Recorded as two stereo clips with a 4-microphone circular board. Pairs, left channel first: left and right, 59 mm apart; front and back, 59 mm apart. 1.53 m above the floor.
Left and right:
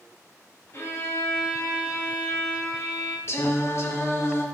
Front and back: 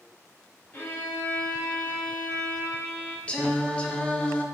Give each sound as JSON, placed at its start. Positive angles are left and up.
{"t": 0.7, "sound": "a violin", "azimuth_deg": 55, "distance_m": 1.9}
{"t": 3.3, "sound": "singing", "azimuth_deg": 65, "distance_m": 0.9}